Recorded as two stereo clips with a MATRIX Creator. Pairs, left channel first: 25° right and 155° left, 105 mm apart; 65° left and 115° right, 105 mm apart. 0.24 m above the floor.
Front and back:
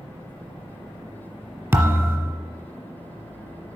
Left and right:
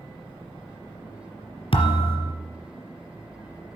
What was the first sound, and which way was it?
A thud, 95° left.